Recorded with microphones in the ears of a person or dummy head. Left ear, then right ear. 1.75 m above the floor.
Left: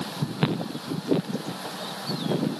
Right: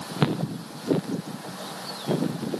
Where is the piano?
No piano in this recording.